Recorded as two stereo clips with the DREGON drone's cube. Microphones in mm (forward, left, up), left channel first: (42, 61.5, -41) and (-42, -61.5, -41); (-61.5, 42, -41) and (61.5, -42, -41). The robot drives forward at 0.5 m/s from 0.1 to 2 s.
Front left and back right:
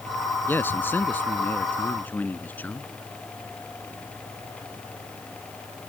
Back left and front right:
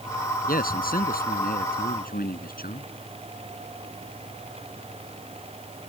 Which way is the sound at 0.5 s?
130° left.